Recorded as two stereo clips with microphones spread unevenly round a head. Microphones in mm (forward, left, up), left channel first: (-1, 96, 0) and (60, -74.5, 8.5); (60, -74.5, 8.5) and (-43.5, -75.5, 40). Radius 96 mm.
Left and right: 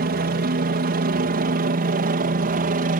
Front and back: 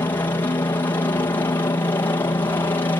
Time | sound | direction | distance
0.0 | a helicopter | 50° right | ?